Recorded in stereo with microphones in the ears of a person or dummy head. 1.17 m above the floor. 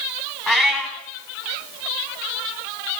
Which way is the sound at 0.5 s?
5° left (ahead or behind).